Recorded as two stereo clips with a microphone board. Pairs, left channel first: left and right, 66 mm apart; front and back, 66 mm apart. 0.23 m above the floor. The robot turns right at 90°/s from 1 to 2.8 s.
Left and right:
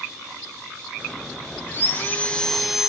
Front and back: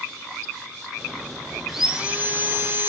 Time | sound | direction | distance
1.7 | sawing | 95° left | 1.4 m